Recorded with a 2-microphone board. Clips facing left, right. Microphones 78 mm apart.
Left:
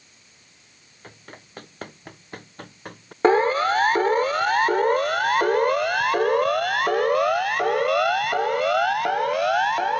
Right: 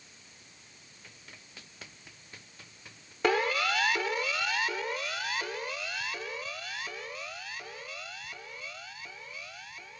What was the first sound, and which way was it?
Running footsteps, 50° left (ahead or behind).